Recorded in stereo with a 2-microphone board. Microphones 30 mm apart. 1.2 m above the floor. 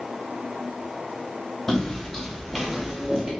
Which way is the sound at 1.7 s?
25° left (ahead or behind).